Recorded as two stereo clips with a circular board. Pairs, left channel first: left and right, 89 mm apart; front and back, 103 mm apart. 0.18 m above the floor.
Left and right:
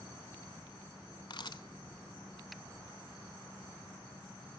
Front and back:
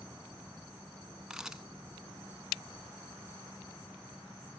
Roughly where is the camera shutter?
Left.